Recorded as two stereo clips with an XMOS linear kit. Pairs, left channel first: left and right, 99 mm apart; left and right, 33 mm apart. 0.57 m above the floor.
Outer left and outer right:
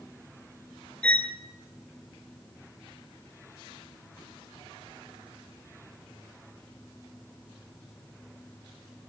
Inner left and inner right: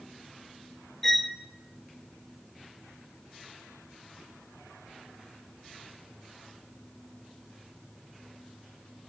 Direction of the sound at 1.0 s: 10° left (ahead or behind).